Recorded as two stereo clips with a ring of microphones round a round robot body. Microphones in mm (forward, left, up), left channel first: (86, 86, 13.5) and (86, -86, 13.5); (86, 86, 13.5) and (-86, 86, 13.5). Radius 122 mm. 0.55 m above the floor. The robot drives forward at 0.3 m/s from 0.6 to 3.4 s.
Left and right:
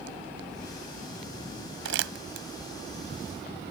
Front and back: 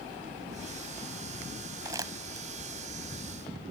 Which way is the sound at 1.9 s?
105° right.